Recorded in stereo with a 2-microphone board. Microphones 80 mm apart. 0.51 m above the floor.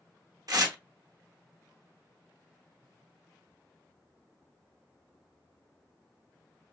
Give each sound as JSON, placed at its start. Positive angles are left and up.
{"t": 0.5, "sound": "tearing paper", "side_deg": -55, "distance_m": 0.6}